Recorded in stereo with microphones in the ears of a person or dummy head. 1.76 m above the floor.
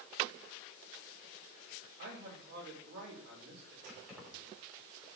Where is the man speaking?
65° right (ahead or behind), 6 m.